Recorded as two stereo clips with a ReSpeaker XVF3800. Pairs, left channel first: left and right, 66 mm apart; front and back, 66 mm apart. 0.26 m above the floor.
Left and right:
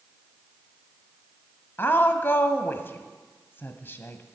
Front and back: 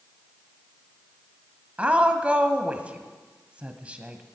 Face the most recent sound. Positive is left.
turn(degrees=120)